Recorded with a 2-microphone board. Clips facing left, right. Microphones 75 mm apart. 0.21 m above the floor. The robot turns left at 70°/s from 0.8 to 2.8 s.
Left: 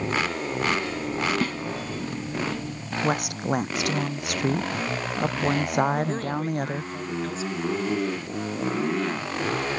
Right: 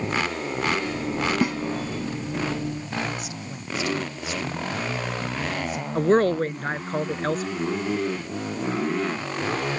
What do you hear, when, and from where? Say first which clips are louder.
1.4 s a snare drum: right 4 dB; 15° right (ahead or behind); by 1.6 s 10° right (ahead or behind)
3.0 s a woman speaking: left 7 dB; 65° left (ahead or behind)
6.0 s a woman speaking: right 8 dB; 55° right (ahead or behind)